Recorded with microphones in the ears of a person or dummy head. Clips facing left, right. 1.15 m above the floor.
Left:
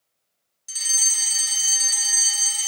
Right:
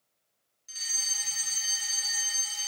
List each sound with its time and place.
0.7 s a fire alarm: 60° left (ahead or behind), 2 m